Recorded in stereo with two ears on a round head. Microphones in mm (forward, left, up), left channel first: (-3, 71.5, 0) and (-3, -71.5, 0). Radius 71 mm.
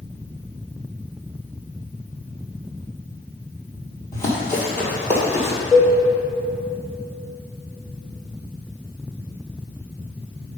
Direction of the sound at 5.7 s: 15° right (ahead or behind).